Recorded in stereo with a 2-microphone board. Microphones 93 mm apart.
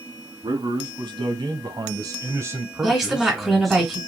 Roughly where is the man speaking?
Right.